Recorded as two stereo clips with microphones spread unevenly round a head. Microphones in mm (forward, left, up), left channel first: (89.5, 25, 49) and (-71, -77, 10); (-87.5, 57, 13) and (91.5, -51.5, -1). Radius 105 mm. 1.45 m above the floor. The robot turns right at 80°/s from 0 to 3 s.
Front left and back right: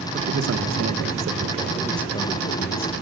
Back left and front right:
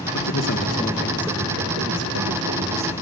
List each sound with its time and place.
0.1 s a man speaking: 160° left, 2 m; by 2.9 s 20° left, 2 m